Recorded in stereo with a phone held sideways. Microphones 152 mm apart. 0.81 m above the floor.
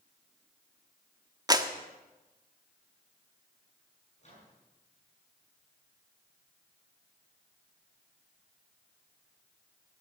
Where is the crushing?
I don't hear crushing.